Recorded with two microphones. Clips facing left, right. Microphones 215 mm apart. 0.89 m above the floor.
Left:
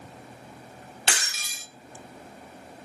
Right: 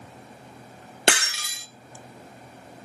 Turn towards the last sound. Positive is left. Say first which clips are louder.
# right 10 dB
turn(degrees=-70)  # may be behind; listen again after turning